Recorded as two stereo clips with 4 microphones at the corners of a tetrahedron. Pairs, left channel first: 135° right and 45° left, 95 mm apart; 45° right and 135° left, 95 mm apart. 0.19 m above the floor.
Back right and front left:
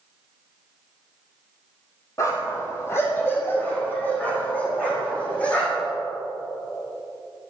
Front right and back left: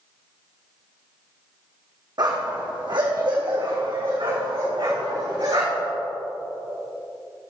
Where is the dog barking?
170° left, 2.5 m; by 5.9 s 150° left, 5 m.